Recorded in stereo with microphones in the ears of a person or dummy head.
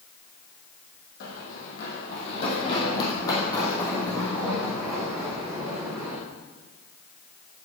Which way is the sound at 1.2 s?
50° left (ahead or behind).